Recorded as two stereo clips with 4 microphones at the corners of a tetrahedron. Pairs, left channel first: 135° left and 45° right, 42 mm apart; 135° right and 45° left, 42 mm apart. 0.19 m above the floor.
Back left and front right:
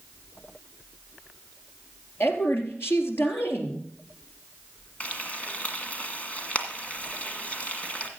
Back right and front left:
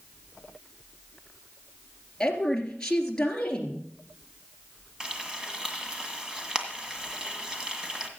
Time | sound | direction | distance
2.2 | a woman speaking | 155° left | 3 m
5.0 | frying | 105° left | 1.8 m